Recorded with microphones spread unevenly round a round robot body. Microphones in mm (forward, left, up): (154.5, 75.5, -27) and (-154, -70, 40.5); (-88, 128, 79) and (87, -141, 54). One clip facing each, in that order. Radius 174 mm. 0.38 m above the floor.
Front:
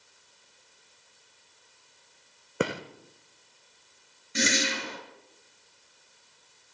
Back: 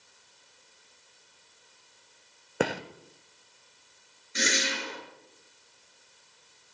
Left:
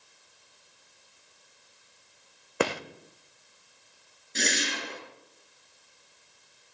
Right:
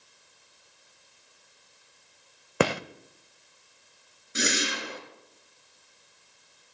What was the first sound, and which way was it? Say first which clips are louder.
A gunshot: back 1 dB, right 3 dB; 55° right.